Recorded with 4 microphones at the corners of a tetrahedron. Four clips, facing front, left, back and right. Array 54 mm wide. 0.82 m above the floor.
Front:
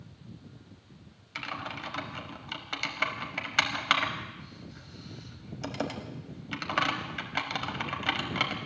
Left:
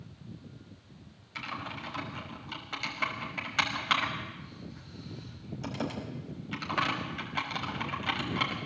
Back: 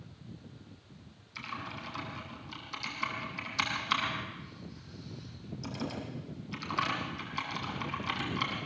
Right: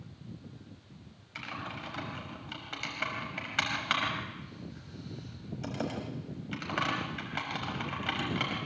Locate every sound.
1.4 s typing on a keyboard: 5° right, 5 m